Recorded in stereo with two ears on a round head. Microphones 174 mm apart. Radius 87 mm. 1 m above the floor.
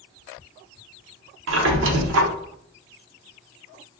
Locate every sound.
1.5 s a squeak: 75° right (ahead or behind), 0.6 m